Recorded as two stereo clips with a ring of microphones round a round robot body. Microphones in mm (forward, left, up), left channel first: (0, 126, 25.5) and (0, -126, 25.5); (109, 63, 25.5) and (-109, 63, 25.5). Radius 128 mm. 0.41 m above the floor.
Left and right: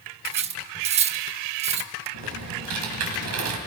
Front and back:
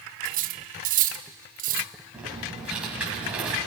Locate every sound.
0.2 s cutlery clinking: 145° right, 0.6 m
2.1 s typing on a keyboard: 95° right, 2.5 m